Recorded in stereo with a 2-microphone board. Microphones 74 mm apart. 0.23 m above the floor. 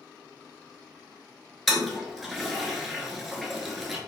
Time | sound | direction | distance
1.7 | a toilet flushing | centre (ahead or behind) | 0.6 m